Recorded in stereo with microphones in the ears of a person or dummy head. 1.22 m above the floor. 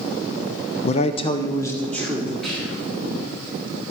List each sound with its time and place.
0.8 s a man speaking: 35° left (ahead or behind), 0.6 m; by 2.3 s centre (ahead or behind), 1.5 m
2.4 s whispering: centre (ahead or behind), 3.5 m